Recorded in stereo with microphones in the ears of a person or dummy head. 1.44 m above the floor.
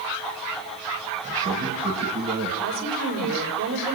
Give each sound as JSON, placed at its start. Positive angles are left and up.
{"t": 1.2, "sound": "a man speaking", "side_deg": -30, "distance_m": 6.5}
{"t": 2.6, "sound": "a woman speaking", "side_deg": -70, "distance_m": 7.0}